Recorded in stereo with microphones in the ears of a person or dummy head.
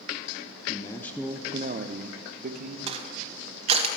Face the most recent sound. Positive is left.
turn(degrees=-40)  # may be behind; listen again after turning